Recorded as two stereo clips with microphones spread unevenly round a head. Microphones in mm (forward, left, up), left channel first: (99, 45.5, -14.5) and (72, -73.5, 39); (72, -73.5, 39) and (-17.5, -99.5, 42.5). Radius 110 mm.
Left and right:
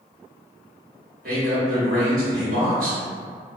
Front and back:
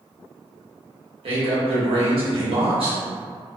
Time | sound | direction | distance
1.2 | a man speaking | 155° right | 1.0 m